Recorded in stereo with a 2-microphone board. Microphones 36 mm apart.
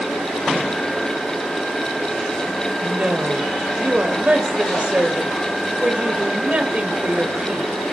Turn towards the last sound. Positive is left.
turn(degrees=-40)  # may be behind; listen again after turning